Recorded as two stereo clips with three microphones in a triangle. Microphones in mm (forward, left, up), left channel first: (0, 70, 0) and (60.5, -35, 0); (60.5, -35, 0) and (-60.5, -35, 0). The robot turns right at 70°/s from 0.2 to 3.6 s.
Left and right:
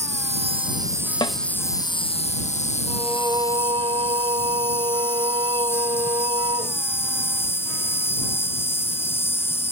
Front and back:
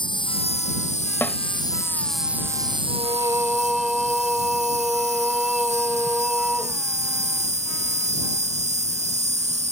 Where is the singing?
145° right; by 6.8 s 90° right.